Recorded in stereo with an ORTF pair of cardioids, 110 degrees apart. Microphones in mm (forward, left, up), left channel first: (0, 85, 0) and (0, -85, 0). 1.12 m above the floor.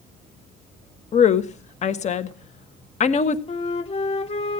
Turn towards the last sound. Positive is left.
turn(degrees=40)